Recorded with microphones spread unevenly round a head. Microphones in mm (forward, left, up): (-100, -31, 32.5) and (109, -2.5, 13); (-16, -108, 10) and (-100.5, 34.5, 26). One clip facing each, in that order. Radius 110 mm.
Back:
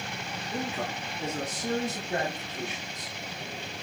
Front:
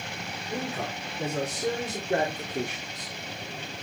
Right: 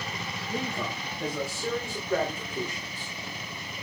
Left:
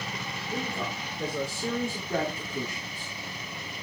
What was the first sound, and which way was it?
A man speaking, 50° left.